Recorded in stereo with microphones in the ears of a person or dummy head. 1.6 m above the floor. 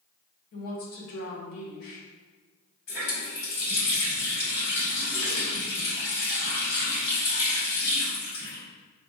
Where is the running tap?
70° left (ahead or behind), 2.0 m.